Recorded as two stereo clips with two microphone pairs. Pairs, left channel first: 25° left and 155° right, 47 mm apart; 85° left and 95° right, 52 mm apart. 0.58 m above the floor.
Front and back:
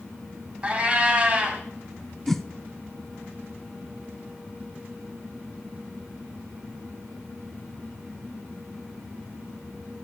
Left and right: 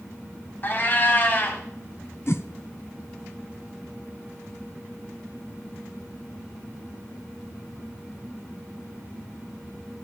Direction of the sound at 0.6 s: 140° left.